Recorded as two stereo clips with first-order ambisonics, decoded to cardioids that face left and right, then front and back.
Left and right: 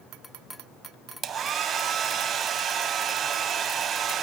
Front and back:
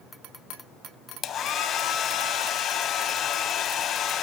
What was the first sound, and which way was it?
A hair dryer, 45° right.